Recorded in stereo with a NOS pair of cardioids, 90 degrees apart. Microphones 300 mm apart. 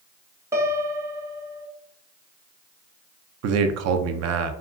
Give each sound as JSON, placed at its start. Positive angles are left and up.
{"t": 0.5, "sound": "a piano", "azimuth_deg": -10, "distance_m": 0.5}
{"t": 3.4, "sound": "a man speaking", "azimuth_deg": -60, "distance_m": 0.5}